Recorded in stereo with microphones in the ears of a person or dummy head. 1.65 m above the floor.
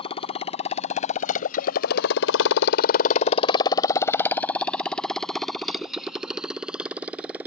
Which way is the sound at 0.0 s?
30° left (ahead or behind).